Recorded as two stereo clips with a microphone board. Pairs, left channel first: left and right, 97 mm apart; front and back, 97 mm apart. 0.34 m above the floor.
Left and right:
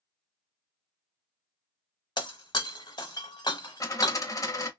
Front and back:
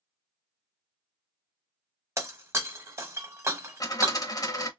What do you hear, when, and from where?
2.2 s breaking glass: 120° left, 0.9 m
3.8 s a dropped coin: 45° left, 0.7 m